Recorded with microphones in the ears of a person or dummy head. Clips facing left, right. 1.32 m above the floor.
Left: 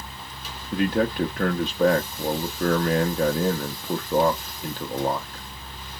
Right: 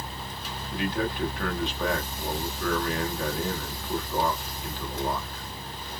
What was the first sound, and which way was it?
A man speaking, 40° left (ahead or behind).